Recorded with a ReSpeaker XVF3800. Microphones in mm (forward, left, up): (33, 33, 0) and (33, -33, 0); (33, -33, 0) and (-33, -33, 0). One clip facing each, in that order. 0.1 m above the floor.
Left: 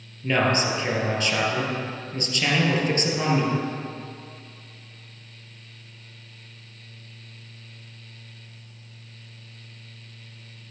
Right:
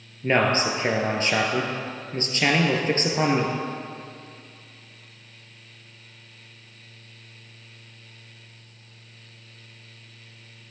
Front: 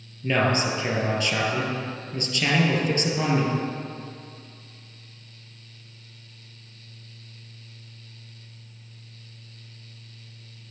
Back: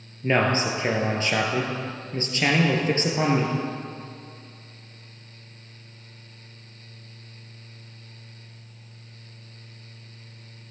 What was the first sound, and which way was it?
A man speaking, 135° right.